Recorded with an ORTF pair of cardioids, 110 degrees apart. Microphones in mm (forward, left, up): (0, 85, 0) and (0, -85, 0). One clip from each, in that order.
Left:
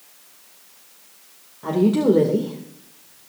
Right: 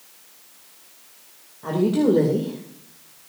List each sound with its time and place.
1.6 s a woman speaking: 15° left, 2 m